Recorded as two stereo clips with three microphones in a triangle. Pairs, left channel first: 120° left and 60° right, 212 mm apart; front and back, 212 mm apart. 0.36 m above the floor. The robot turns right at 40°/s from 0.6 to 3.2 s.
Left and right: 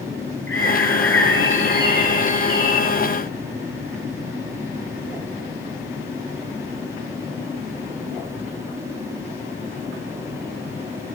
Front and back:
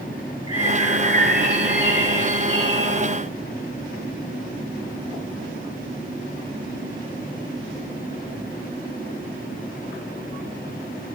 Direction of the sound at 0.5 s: 110° left.